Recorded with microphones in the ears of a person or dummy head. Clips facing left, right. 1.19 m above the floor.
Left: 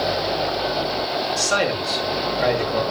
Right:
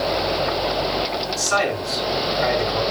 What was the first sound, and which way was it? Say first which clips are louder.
A man speaking: right 1 dB; 60° left (ahead or behind).